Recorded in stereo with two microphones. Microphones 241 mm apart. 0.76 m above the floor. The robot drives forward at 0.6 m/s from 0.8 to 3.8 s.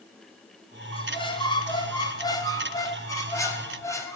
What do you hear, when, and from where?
0.9 s a squeak: 20° left (ahead or behind), 2.0 m; by 4.2 s 10° left (ahead or behind), 3.5 m